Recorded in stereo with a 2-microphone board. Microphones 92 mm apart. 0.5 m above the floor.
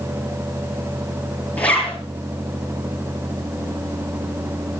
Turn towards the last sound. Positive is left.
turn(degrees=15)  # may be behind; listen again after turning